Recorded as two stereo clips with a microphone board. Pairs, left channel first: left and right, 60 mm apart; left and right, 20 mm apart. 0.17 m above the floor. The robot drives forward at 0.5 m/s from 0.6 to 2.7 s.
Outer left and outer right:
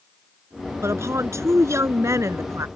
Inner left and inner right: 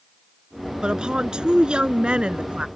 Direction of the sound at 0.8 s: 50° right (ahead or behind).